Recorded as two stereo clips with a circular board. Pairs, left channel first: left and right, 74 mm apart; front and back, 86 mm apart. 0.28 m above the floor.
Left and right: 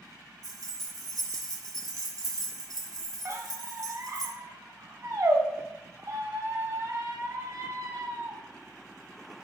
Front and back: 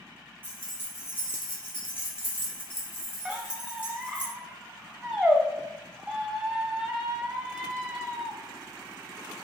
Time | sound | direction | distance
0.4 | keys jangling | 60° right | 1.8 m
3.2 | a squeak | 95° right | 1.0 m